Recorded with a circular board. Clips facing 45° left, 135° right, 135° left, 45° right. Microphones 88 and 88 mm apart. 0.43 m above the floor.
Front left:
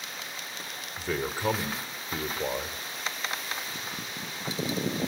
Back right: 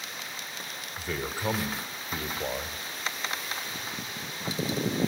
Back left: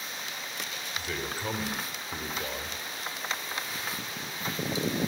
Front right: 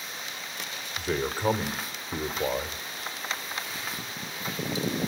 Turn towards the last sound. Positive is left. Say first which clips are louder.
# front left 3 dB, front right 7 dB
turn(degrees=0)